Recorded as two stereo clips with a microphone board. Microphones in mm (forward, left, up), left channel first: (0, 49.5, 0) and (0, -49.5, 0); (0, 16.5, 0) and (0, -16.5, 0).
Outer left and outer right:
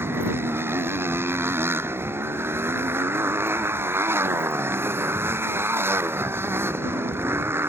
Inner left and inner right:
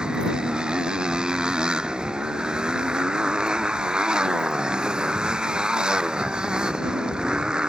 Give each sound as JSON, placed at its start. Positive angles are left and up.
{"t": 0.0, "sound": "a motorcycle", "side_deg": -25}